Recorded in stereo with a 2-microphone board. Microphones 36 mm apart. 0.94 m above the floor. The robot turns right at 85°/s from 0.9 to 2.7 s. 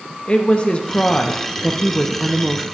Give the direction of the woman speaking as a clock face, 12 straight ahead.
10 o'clock.